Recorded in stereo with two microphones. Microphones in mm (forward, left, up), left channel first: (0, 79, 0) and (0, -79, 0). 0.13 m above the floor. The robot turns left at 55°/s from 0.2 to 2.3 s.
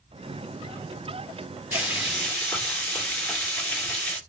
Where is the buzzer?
I don't hear a buzzer.